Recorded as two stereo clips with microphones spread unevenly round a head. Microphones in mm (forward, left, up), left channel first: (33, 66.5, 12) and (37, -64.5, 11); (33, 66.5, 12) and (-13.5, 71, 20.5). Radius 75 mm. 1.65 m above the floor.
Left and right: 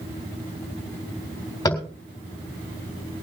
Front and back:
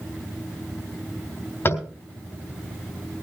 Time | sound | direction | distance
1.6 | tapping | 25° left | 4 m